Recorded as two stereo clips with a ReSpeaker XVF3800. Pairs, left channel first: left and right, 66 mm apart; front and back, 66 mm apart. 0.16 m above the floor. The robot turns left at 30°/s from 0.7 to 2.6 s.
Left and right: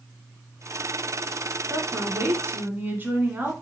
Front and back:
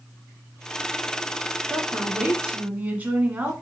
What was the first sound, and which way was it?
A woman speaking, 100° right.